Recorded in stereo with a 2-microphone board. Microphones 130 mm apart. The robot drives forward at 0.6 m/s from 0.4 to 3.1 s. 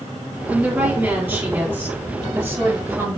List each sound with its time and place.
0.5 s a woman speaking: 10° right (ahead or behind), 4.5 m; by 3.2 s 15° right (ahead or behind), 3 m